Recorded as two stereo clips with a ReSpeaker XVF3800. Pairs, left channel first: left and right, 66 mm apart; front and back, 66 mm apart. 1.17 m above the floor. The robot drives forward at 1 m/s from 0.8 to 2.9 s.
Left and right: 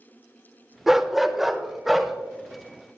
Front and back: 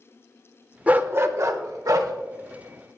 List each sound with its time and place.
0.9 s a dog barking: 165° right, 0.8 m; by 2.1 s 175° right, 1.7 m